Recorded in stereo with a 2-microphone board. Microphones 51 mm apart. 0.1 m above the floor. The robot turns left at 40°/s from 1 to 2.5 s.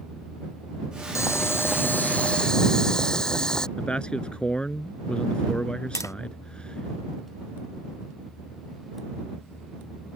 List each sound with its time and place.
1.1 s boiling: 70° left; by 3.7 s 15° left
3.8 s a man speaking: 20° left (ahead or behind)
6.0 s tapping: 75° left (ahead or behind)